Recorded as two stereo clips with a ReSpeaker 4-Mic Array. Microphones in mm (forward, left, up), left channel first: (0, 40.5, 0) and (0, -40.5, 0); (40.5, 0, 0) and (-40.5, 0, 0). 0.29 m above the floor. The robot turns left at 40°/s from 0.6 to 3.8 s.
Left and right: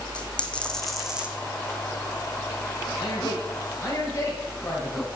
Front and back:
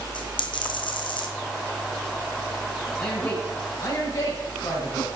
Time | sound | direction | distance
0.1 | a dropped coin | 15° left | 1.3 m
3.0 | a man speaking | 75° left | 2.5 m